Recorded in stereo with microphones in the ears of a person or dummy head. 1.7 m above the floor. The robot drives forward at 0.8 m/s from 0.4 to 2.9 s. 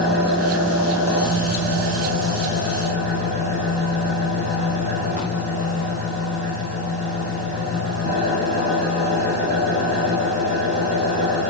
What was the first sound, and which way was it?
An engine running, 70° right (ahead or behind).